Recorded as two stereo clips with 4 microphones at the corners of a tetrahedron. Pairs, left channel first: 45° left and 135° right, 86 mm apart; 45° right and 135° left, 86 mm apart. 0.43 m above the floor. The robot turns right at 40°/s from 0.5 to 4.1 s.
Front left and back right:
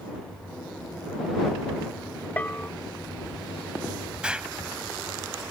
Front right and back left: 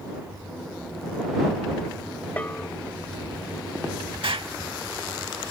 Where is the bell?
5° right; by 2.7 s 10° left.